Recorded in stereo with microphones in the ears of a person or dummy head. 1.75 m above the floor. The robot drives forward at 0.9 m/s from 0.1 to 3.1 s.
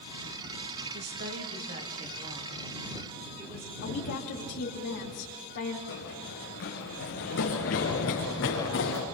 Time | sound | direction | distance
0.9 | a woman speaking | 55° right (ahead or behind) | 2.5 m
3.8 | a woman speaking | 60° left (ahead or behind) | 4 m
5.9 | running footsteps | 70° left (ahead or behind) | 5 m